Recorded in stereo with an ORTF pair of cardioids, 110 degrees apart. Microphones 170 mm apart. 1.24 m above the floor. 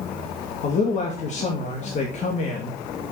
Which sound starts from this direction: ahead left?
A man speaking, at 0.6 s.